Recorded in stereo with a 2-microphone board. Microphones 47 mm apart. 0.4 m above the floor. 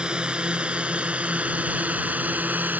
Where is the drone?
15° right (ahead or behind); by 2.8 s 35° right (ahead or behind).